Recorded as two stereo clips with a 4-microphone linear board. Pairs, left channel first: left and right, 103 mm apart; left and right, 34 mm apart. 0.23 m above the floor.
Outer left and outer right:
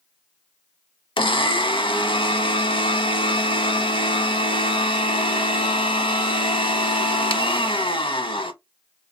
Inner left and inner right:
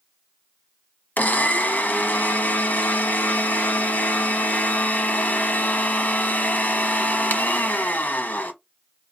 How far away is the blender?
About 0.7 m.